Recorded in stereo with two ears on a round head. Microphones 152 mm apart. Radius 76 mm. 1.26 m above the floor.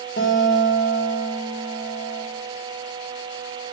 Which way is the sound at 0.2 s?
65° left (ahead or behind).